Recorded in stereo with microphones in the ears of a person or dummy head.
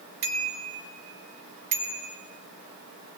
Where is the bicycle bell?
55° right (ahead or behind), 5 m; by 2.2 s 40° right (ahead or behind), 5 m.